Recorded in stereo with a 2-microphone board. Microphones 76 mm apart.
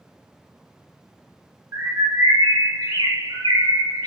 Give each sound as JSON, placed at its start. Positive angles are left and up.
{"t": 1.7, "sound": "a bird", "side_deg": -55, "distance_m": 1.0}